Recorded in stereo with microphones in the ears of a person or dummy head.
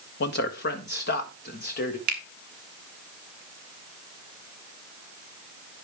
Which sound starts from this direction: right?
A finger snap, at 2.1 s.